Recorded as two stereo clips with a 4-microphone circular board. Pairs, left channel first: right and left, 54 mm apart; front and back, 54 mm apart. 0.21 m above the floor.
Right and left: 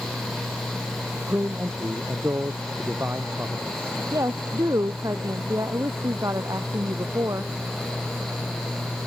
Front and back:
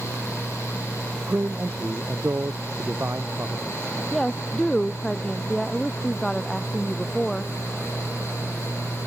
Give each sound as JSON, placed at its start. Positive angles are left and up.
{"t": 1.3, "sound": "a man speaking", "azimuth_deg": 135}
{"t": 4.1, "sound": "a woman speaking", "azimuth_deg": 80}